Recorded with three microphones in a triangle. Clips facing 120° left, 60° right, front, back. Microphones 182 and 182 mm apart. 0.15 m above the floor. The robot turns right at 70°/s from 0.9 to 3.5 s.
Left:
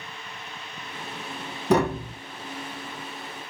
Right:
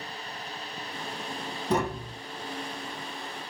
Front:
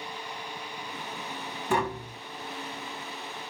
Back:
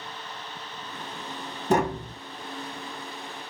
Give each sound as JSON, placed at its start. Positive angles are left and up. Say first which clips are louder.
{"t": 1.7, "sound": "tapping", "louder": "left 6 dB, back 5 dB", "azimuth_deg": 130, "distance_m": 1.3}